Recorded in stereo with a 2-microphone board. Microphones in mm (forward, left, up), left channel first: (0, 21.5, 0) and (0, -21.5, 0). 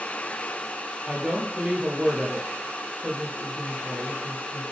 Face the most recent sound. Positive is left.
turn(degrees=-20)  # may be behind; listen again after turning